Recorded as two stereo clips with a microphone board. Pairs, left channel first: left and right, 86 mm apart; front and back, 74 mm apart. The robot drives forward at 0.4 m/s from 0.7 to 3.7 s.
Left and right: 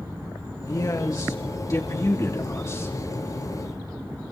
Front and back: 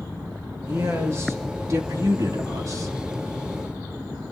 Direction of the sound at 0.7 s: 130° left.